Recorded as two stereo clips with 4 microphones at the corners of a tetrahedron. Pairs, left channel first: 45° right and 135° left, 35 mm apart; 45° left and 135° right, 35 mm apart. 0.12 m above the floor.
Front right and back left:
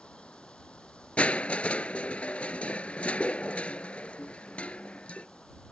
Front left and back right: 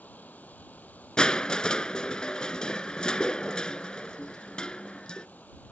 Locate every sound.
0.0 s running water: 10° left
1.2 s crushing: 15° right